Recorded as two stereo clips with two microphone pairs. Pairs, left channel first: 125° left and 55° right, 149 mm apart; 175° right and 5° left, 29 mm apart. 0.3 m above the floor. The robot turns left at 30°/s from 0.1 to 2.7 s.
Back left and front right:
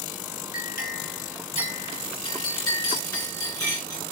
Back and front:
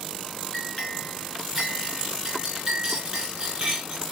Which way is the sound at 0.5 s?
125° left.